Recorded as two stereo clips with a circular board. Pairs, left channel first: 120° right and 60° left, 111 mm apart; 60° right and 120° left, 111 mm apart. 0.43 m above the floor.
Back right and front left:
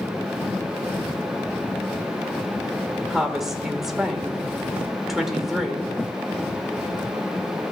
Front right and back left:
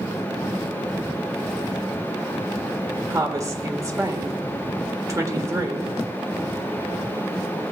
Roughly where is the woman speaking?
Behind left.